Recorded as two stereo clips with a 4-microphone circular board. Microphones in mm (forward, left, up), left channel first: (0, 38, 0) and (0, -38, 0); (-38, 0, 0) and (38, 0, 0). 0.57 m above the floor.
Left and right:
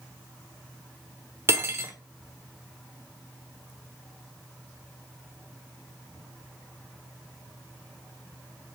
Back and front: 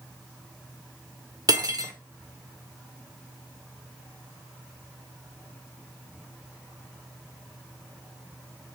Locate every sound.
1.5 s cutlery clinking: 35° right, 0.7 m